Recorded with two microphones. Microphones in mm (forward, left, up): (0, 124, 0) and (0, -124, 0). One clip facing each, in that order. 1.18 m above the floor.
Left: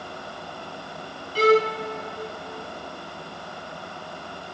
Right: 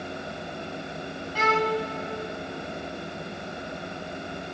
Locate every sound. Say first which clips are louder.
1.4 s a violin: left 7 dB; 40° left (ahead or behind), 0.7 m